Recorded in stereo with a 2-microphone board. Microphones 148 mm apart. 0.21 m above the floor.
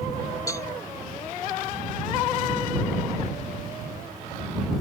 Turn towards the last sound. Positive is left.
turn(degrees=25)  # may be behind; listen again after turning